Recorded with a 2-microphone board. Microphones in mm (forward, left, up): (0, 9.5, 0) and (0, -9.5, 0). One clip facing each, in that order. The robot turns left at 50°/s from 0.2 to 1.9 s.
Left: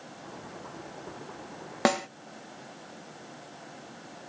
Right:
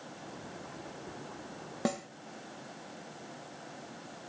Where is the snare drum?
50° left (ahead or behind); by 2.1 s 45° left (ahead or behind).